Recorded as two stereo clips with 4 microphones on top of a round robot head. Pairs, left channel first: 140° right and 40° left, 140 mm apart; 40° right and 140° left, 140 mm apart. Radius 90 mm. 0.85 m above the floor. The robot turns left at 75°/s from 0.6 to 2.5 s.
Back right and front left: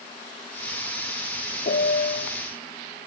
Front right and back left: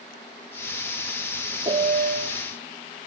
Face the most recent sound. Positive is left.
turn(degrees=130)